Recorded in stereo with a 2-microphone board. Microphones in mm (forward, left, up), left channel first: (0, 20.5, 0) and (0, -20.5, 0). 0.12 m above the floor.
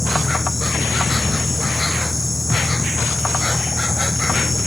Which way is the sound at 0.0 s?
Centre (ahead or behind).